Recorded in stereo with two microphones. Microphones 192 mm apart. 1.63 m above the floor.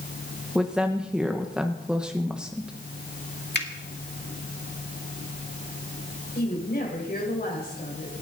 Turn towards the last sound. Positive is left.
turn(degrees=50)  # may be behind; listen again after turning